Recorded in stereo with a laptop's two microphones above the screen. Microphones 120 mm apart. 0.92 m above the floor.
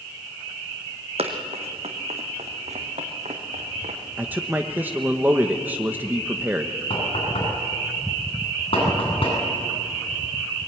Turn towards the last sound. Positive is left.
turn(degrees=50)  # may be behind; listen again after turning